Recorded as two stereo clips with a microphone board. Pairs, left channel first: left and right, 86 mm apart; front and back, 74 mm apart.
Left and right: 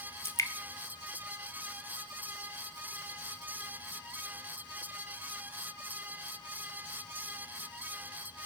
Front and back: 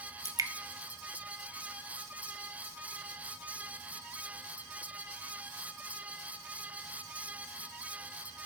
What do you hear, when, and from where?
0.2 s dripping: 145° left, 0.6 m